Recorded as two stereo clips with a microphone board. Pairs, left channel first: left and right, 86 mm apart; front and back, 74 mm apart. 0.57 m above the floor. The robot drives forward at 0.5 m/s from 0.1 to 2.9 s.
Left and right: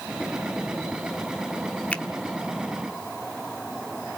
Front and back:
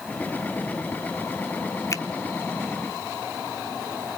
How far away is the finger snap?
About 1.0 m.